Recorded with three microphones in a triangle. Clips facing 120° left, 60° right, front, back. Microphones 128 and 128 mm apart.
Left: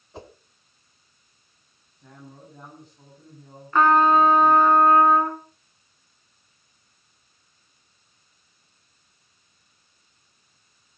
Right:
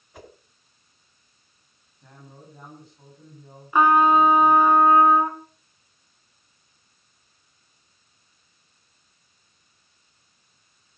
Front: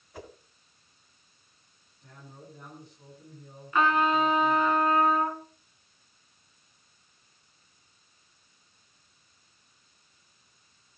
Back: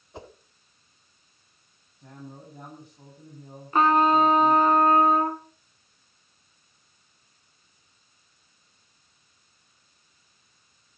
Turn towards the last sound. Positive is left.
turn(degrees=-135)